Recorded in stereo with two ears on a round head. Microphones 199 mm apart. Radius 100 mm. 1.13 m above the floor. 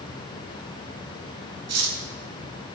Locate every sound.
1.7 s cutlery clinking: 80° right, 1.0 m